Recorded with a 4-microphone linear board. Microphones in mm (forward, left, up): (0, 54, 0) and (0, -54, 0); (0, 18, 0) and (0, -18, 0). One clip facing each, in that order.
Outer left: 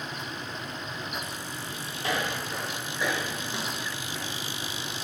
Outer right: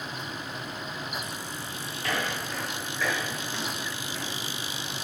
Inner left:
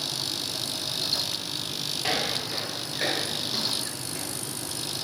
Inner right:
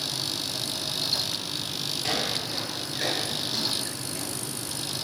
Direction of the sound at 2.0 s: 20° left (ahead or behind).